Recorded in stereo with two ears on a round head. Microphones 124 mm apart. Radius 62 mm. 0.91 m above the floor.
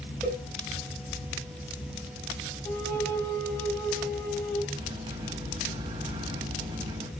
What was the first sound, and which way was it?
A cowbell, 5° left (ahead or behind).